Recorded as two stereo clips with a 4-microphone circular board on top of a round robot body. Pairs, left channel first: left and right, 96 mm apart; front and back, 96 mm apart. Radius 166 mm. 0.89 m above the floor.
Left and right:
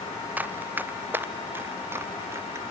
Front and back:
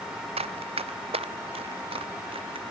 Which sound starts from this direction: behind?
Running footsteps, at 0.4 s.